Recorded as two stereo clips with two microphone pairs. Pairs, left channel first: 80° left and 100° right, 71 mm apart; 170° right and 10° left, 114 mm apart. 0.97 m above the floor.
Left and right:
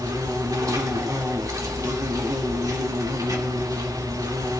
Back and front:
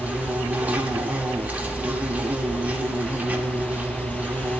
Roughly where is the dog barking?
I don't hear a dog barking.